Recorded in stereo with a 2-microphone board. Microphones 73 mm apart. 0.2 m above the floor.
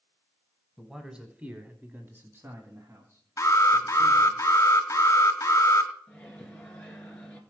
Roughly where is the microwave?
Centre.